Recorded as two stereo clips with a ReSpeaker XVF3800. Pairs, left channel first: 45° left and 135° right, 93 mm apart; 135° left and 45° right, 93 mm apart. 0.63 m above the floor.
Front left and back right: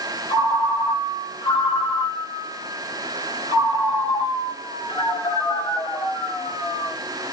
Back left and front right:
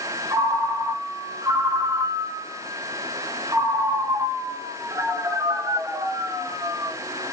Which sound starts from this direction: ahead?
A ringtone, at 0.3 s.